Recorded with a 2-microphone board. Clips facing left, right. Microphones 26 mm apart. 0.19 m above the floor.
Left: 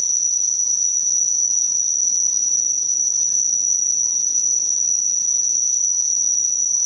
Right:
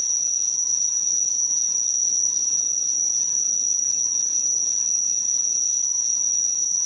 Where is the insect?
65° left (ahead or behind), 0.9 m.